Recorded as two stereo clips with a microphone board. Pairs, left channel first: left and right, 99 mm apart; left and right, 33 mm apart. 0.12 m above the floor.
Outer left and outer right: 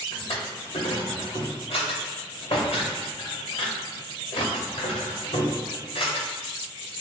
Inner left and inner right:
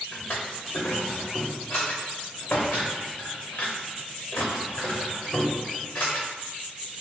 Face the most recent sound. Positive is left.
turn(degrees=70)  # may be behind; listen again after turning